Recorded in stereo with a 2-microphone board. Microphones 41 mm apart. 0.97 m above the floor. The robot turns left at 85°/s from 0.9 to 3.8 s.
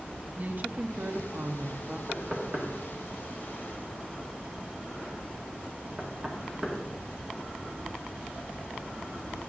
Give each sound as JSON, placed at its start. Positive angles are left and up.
{"t": 0.4, "sound": "a woman speaking", "azimuth_deg": -50, "distance_m": 0.7}
{"t": 2.1, "sound": "knocking", "side_deg": -20, "distance_m": 1.6}